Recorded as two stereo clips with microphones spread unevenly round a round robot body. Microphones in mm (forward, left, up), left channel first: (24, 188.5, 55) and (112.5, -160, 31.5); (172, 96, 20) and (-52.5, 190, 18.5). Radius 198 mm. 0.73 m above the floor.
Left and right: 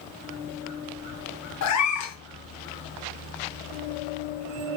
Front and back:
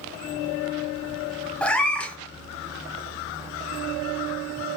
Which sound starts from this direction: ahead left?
A cat meowing, at 1.6 s.